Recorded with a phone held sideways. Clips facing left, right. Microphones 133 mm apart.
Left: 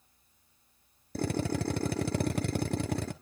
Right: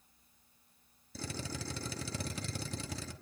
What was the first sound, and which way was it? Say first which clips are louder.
A drill: left 11 dB; 60° left (ahead or behind).